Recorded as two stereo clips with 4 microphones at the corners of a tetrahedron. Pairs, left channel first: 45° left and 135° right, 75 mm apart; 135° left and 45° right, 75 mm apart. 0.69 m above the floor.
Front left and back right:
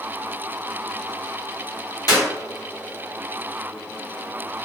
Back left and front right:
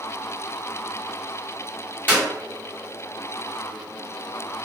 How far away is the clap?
About 1.3 m.